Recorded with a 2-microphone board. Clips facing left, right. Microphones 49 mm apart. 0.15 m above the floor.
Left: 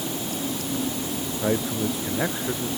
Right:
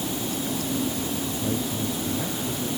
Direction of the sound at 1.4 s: 85° left.